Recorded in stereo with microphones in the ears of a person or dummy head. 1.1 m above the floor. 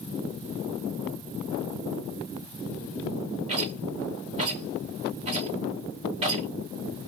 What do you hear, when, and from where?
3.5 s a rattle: 35° right (ahead or behind), 2 m